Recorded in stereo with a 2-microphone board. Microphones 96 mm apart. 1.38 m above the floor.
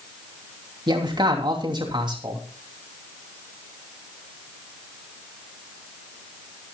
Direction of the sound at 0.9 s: 55° right (ahead or behind).